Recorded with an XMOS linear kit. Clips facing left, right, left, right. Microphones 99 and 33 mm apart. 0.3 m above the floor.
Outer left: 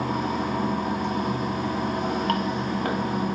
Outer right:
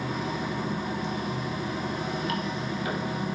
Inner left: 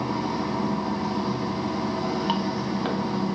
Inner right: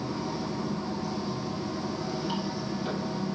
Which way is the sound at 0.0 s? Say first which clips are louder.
Outer left 5 dB, inner left 6 dB; 60° left (ahead or behind).